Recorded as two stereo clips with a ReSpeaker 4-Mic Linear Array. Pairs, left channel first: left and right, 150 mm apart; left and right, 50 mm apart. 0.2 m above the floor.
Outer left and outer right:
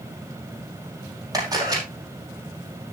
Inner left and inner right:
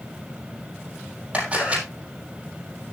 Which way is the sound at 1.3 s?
25° right (ahead or behind).